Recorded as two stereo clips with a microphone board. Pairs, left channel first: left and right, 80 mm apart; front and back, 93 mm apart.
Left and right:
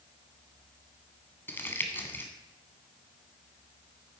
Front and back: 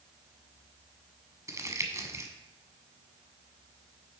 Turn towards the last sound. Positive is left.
turn(degrees=140)